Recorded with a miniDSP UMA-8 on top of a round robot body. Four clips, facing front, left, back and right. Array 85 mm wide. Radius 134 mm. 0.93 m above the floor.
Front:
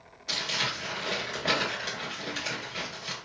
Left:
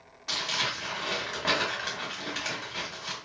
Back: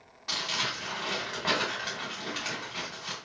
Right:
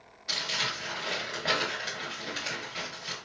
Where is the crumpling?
135° left, 1.5 m.